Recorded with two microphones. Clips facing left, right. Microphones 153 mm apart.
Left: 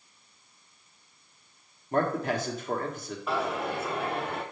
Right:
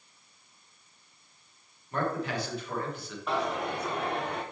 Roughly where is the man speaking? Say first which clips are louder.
Left 4 dB; left.